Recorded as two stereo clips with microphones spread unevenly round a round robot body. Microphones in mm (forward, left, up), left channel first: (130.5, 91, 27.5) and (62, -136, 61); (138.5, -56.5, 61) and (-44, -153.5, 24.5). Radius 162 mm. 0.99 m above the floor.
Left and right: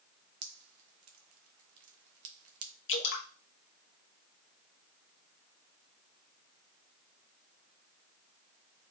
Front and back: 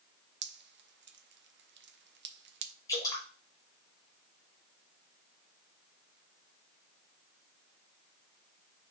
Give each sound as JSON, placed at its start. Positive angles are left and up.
{"t": 0.4, "sound": "dripping", "azimuth_deg": -115, "distance_m": 0.6}
{"t": 2.9, "sound": "dripping", "azimuth_deg": 110, "distance_m": 0.9}